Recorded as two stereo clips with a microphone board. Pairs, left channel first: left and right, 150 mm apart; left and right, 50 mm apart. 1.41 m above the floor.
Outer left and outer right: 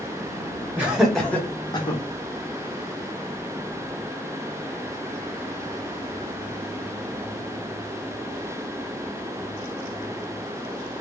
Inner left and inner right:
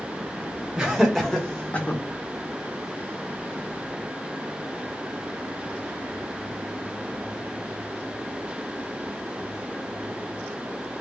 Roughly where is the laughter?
Centre.